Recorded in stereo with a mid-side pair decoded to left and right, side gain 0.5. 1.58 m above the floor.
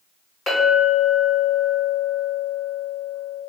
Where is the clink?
45° left, 2.0 m.